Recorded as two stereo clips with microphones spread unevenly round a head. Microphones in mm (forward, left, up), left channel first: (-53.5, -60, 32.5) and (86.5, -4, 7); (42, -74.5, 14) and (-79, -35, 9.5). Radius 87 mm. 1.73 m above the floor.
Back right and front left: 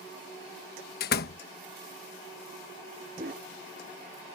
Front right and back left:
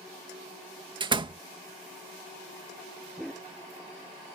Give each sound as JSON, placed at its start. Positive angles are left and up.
{"t": 1.0, "sound": "a door slam", "azimuth_deg": -145}
{"t": 3.2, "sound": "a dog barking", "azimuth_deg": 70}